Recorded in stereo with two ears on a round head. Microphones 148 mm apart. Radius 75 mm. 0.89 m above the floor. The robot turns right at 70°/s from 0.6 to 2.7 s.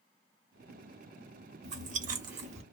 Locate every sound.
1.6 s chewing: 40° right (ahead or behind), 0.8 m; by 2.6 s 35° right (ahead or behind), 0.8 m